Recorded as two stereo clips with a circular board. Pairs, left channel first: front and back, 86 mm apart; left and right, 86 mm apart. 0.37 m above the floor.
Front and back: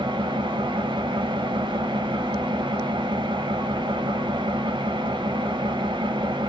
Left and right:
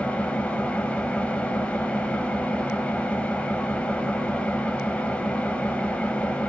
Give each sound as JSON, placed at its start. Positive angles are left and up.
{"t": 0.0, "sound": "an engine running", "azimuth_deg": 165, "distance_m": 0.7}